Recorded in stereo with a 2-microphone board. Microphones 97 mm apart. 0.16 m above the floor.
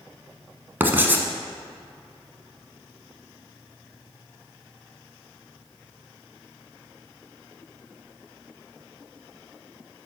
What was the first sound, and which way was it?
Writing, 20° right (ahead or behind).